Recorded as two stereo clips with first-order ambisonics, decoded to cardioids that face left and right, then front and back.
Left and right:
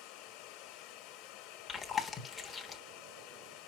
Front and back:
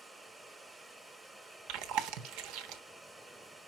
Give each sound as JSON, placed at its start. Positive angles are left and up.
{"t": 0.0, "sound": "running water", "azimuth_deg": 100, "distance_m": 1.1}
{"t": 1.7, "sound": "chewing", "azimuth_deg": 165, "distance_m": 1.1}